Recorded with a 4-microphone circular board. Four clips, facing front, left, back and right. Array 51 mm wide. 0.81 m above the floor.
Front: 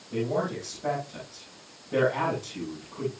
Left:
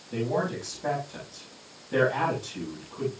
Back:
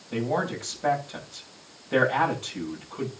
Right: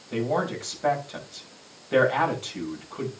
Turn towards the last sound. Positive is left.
turn(degrees=-125)